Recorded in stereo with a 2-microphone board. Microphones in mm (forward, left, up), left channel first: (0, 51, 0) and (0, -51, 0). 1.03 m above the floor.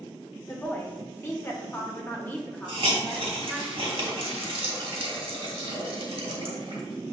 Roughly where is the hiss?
Right.